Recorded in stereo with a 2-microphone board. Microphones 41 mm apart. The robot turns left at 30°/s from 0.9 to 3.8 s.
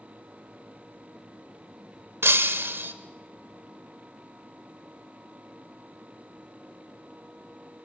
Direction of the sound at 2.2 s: 80° right.